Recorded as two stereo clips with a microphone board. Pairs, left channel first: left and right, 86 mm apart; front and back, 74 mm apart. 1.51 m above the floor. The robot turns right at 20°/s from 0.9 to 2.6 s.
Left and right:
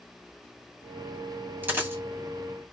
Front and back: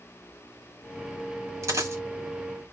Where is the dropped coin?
150° right, 2.0 m; by 2.0 s 145° right, 2.0 m.